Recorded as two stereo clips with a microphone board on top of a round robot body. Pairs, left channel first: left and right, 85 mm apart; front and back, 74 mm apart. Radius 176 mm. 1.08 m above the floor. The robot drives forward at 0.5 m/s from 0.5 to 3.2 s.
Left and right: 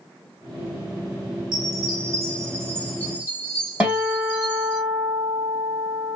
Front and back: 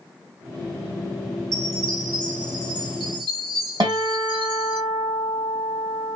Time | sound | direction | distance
1.5 | a chime | 130° right | 0.7 m
3.8 | a guitar | 165° right | 2.5 m